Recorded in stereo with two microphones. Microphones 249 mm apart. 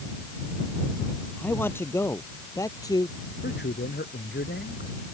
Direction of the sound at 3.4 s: 45° left (ahead or behind).